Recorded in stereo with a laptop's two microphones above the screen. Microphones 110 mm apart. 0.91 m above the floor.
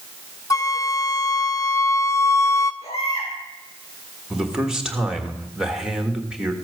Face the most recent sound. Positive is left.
turn(degrees=-5)  # may be behind; listen again after turning